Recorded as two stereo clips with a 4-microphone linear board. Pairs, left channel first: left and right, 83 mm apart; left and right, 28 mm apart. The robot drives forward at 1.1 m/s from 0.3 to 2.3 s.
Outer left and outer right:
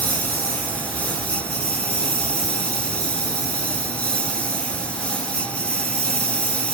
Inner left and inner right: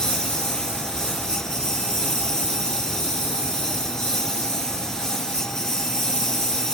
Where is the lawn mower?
20° left (ahead or behind); by 6.8 s 15° left (ahead or behind).